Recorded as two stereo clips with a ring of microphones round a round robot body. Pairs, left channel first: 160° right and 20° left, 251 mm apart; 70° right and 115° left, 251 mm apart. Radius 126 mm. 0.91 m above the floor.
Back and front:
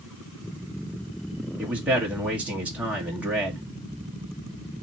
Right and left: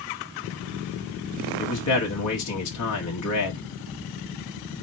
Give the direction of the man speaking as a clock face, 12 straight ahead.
2 o'clock.